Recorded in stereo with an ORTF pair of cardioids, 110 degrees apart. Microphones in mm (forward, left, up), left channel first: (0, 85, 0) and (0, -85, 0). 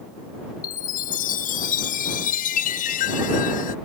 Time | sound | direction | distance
0.6 | a chime | 50° left | ?